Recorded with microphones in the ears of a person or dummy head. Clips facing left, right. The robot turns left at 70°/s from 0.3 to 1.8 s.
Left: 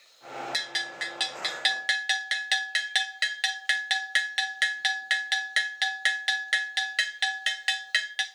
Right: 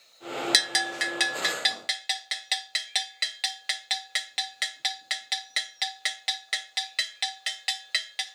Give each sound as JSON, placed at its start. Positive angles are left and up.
{"t": 0.5, "sound": "a bell", "side_deg": -70, "distance_m": 0.6}